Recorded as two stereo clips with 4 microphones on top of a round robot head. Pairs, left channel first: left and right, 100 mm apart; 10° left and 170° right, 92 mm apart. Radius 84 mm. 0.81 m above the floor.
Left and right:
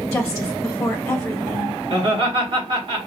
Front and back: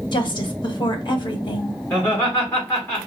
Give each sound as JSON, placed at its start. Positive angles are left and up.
{"t": 0.1, "sound": "a woman speaking", "azimuth_deg": 10, "distance_m": 1.2}
{"t": 1.9, "sound": "laughter", "azimuth_deg": -55, "distance_m": 2.0}